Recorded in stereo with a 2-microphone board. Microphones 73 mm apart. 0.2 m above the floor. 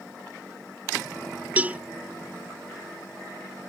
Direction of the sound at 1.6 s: 20° right (ahead or behind).